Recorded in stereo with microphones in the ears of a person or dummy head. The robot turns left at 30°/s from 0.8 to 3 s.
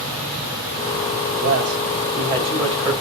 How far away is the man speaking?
About 5.5 m.